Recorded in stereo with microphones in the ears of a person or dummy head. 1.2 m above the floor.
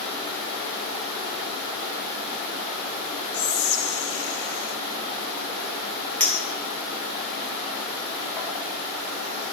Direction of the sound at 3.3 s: 60° left (ahead or behind).